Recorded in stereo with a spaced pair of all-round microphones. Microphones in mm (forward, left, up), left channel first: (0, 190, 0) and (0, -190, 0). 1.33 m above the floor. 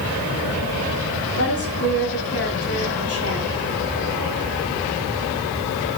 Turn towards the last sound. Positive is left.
turn(degrees=35)  # may be behind; listen again after turning